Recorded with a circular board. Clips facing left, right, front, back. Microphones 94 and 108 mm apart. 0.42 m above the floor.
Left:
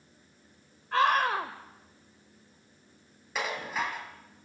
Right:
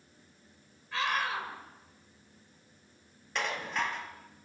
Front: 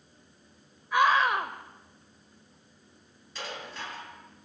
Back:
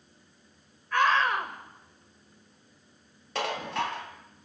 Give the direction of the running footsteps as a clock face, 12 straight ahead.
I don't hear running footsteps.